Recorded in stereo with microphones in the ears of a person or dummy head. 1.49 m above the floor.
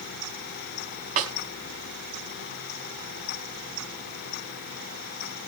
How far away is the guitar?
I don't hear a guitar.